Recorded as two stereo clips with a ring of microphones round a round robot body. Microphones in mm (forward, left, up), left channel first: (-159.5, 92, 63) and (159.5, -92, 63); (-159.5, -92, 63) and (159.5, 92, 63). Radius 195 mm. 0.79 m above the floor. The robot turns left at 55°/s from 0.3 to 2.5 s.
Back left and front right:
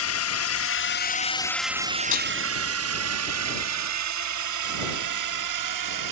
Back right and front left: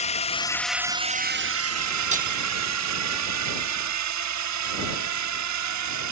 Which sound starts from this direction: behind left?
A drone, at 0.0 s.